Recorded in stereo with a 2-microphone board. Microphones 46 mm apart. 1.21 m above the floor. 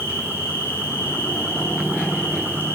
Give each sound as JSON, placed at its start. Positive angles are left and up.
{"t": 0.0, "sound": "an insect", "side_deg": -55, "distance_m": 5.5}